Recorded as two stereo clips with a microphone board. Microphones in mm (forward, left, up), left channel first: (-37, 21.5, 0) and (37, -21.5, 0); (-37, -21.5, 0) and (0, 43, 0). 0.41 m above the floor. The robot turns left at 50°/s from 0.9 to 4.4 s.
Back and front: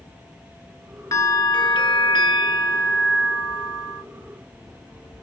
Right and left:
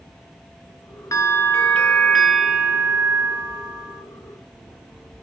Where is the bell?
165° right, 1.3 m; by 4.0 s 50° left, 1.3 m.